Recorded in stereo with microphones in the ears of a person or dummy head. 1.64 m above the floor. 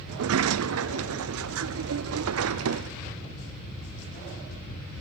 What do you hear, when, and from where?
0.1 s a sliding door: 70° right (ahead or behind), 0.5 m